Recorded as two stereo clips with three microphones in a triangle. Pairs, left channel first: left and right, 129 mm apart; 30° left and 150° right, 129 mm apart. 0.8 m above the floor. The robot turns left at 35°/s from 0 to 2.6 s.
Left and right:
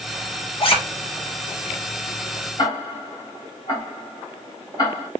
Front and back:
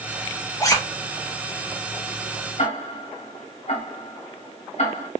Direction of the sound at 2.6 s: 35° left.